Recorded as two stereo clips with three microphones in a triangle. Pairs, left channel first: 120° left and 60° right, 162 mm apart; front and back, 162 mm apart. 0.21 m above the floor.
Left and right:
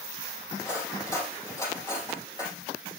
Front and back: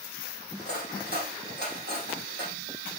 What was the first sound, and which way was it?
Cutlery clinking, 170° right.